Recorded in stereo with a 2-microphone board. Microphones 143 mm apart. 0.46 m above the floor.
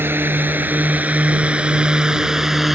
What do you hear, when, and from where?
0.0 s a drone: 15° right (ahead or behind); by 2.8 s centre (ahead or behind)